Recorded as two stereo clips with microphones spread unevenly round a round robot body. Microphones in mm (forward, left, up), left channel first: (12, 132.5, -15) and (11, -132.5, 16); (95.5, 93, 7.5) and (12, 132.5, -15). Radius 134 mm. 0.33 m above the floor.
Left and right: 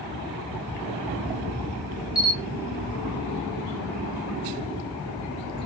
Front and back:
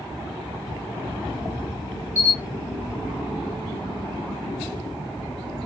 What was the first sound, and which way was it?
A camera shutter, 155° right.